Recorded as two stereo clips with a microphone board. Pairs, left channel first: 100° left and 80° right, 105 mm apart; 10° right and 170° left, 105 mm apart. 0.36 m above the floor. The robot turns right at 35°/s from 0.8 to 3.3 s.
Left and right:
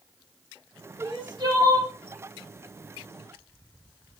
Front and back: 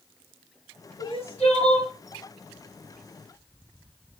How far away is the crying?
About 6 m.